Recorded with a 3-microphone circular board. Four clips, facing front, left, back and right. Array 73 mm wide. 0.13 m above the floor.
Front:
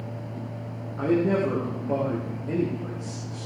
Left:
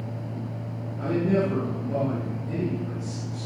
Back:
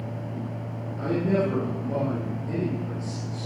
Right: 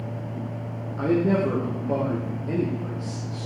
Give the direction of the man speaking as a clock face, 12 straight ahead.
2 o'clock.